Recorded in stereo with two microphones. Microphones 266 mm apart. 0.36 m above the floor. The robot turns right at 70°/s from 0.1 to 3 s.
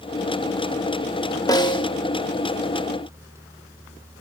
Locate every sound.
1.5 s a snare drum: 15° left (ahead or behind), 1.4 m; by 1.9 s 20° left (ahead or behind), 1.4 m